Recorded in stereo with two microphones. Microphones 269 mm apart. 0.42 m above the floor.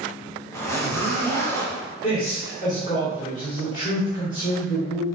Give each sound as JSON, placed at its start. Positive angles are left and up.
{"t": 0.5, "sound": "a zipper", "side_deg": 10, "distance_m": 1.0}
{"t": 2.0, "sound": "a man speaking", "side_deg": 30, "distance_m": 1.3}